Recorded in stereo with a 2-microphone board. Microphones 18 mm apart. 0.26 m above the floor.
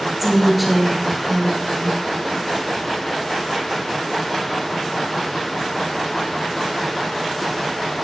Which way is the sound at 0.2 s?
5° right (ahead or behind).